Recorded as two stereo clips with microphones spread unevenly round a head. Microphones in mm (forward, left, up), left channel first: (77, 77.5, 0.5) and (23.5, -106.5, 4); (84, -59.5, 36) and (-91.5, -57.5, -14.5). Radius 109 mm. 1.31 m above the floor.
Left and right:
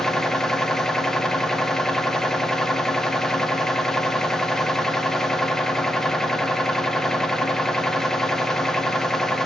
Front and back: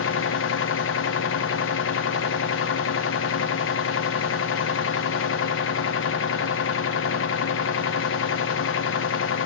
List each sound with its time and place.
0.0 s a machine running: 15° right, 0.7 m